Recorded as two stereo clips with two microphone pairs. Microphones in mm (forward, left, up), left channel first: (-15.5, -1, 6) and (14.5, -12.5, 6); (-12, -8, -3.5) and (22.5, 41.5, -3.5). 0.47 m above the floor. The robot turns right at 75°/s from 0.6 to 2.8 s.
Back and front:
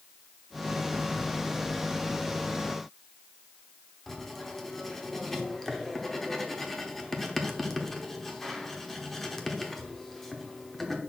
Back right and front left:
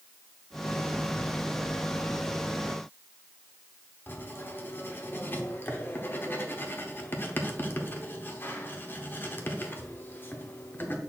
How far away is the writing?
About 0.9 m.